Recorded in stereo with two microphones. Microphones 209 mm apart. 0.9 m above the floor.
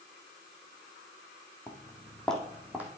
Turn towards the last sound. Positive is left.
turn(degrees=-10)  # may be behind; listen again after turning